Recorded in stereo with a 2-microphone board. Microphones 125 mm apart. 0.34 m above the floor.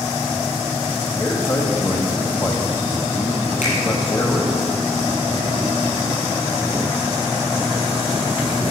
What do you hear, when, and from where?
1.2 s a man speaking: 30° left (ahead or behind), 1.9 m
3.6 s a finger snap: 85° left, 6.5 m